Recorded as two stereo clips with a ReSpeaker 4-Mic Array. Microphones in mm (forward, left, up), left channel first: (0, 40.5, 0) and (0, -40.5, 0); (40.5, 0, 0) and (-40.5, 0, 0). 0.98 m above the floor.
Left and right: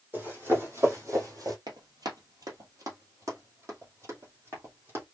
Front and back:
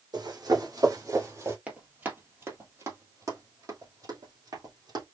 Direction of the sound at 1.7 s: 110° right.